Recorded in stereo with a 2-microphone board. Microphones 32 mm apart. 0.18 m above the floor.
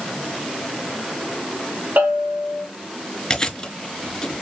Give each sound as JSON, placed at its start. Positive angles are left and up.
{"t": 2.0, "sound": "a bell", "side_deg": -75, "distance_m": 3.5}
{"t": 3.3, "sound": "chewing", "side_deg": 20, "distance_m": 1.7}